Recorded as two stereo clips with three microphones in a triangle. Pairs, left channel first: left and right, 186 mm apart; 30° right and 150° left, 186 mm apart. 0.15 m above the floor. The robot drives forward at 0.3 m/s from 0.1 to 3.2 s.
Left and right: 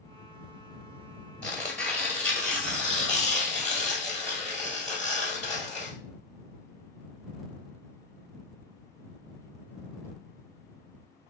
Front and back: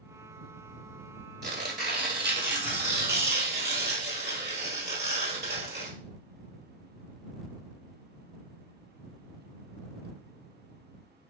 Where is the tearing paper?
170° left, 1.0 m; by 5.9 s 175° left, 1.5 m.